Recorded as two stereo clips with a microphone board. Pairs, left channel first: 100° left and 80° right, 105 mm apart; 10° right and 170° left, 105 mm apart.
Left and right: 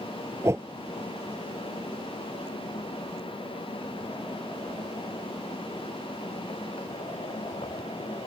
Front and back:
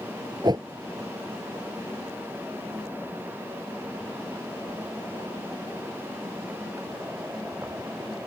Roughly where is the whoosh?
Behind right.